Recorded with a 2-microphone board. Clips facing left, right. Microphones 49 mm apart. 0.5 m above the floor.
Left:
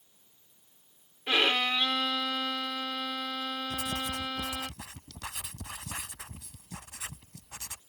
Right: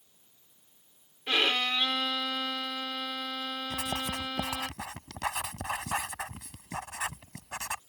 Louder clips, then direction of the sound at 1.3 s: Left 1 dB; 10° left (ahead or behind).